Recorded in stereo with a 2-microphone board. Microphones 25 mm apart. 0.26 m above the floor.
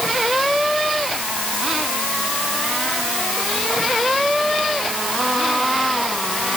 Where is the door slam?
I don't hear a door slam.